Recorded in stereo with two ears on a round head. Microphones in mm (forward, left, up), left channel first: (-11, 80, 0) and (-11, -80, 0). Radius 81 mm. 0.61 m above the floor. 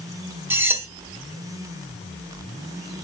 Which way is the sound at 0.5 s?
10° right (ahead or behind).